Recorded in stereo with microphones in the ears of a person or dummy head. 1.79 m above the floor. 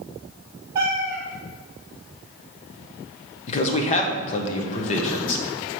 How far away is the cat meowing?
About 1.0 m.